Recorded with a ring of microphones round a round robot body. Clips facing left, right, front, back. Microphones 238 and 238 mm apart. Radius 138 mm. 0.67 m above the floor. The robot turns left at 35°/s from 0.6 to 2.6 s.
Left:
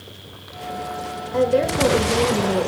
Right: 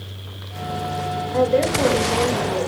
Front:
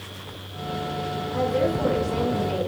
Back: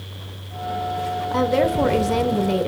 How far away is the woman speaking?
About 2 m.